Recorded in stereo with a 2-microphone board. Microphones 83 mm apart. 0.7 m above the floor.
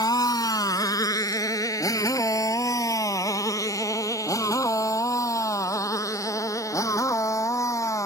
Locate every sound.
0.0 s a motorcycle: 50° left (ahead or behind); by 8.1 s 40° left (ahead or behind)